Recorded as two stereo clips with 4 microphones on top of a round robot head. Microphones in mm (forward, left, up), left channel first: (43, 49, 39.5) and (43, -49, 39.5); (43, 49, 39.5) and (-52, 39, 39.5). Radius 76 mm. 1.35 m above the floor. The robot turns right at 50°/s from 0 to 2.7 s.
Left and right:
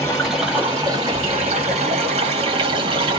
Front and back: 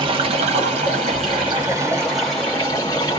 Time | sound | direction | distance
0.0 | running water | 165° left | 1.7 m